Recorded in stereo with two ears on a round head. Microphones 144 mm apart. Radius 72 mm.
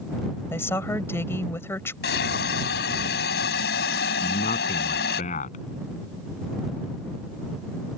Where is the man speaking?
50° left (ahead or behind).